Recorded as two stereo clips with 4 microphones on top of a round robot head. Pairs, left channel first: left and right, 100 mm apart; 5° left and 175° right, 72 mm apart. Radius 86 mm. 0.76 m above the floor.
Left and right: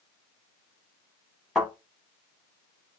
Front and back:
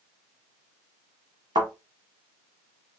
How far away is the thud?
About 1.1 m.